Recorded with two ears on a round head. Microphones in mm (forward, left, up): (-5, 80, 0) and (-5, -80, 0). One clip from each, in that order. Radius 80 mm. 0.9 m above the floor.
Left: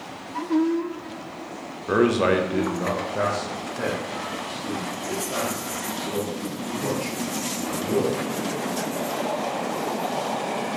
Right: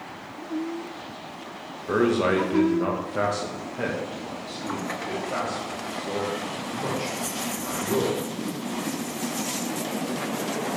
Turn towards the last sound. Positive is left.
turn(degrees=-45)  # may be behind; listen again after turning